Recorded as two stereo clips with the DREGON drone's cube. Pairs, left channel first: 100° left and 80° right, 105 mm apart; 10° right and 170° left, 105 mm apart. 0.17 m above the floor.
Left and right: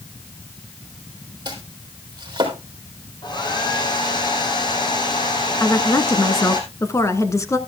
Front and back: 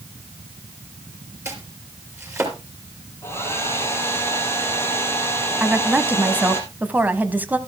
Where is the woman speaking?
115° left, 1.1 m.